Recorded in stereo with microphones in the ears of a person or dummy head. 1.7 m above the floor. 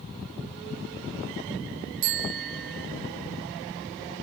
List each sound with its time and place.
2.0 s a bicycle bell: 50° right (ahead or behind), 2.5 m